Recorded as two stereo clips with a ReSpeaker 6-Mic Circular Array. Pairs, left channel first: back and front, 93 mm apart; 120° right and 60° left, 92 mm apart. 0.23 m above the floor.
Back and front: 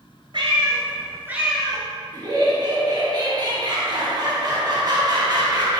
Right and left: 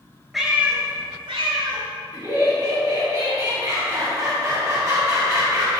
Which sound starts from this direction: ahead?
Laughter, at 2.1 s.